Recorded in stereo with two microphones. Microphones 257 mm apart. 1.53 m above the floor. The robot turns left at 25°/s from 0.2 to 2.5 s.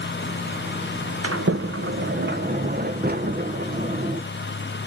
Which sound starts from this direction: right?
A sliding door, at 1.2 s.